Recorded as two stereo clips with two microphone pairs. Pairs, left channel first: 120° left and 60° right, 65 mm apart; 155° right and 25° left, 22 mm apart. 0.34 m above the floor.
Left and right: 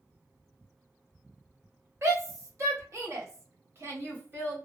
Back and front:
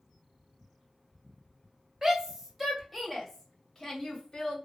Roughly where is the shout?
Ahead right.